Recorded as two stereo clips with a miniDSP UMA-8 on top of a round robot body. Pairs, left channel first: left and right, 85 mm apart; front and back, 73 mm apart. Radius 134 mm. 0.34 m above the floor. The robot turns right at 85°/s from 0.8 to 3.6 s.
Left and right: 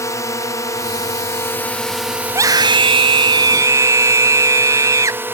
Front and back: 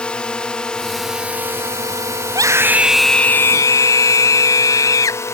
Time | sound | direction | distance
0.0 | a drone | 70° left | ?
2.3 | a scream | 150° right | ?